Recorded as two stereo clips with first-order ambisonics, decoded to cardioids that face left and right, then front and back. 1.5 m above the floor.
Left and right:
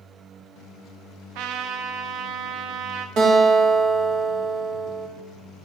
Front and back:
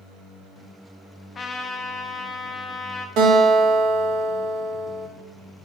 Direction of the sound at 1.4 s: 70° right.